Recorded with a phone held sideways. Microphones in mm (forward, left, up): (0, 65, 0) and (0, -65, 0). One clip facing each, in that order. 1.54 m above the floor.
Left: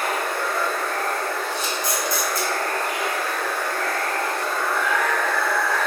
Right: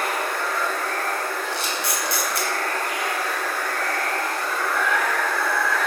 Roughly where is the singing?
No singing in this recording.